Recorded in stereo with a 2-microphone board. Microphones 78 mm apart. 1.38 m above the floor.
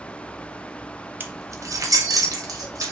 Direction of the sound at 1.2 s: 25° right (ahead or behind).